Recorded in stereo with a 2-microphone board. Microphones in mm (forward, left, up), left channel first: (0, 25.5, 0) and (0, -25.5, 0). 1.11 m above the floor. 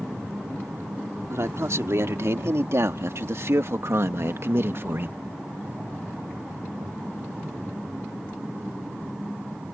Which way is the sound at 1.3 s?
65° right (ahead or behind).